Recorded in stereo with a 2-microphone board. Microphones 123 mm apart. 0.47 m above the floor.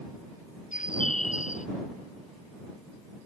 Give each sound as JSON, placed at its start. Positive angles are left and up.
{"t": 0.7, "sound": "a bird", "side_deg": 90}